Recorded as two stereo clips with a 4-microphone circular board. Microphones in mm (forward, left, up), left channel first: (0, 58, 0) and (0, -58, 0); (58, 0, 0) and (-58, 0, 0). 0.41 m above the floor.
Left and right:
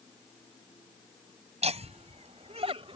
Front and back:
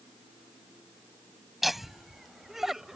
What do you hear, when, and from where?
1.6 s laughter: 90° right; by 3.0 s 95° right